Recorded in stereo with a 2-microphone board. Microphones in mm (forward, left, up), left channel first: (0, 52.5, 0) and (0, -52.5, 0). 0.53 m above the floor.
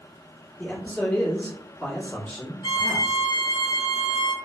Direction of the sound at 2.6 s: 50° left (ahead or behind).